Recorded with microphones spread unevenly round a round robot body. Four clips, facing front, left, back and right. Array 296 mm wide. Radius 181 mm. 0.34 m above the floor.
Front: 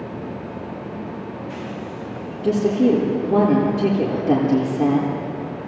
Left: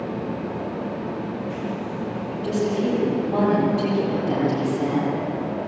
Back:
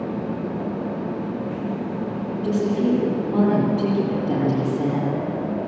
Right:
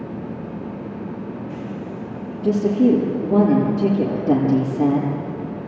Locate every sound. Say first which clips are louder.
2.4 s a woman speaking: right 7 dB, front 4 dB; 80° right, 6.5 m